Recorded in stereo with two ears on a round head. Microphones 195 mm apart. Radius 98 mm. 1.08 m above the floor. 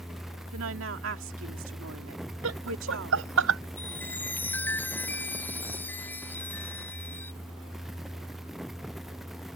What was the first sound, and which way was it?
A woman speaking, 70° right (ahead or behind).